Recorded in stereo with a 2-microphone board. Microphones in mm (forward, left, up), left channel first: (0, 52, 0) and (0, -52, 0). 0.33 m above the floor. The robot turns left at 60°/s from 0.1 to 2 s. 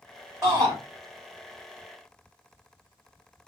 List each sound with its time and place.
0.4 s a shout: 35° right (ahead or behind), 1.7 m; by 0.7 s 50° right (ahead or behind), 1.7 m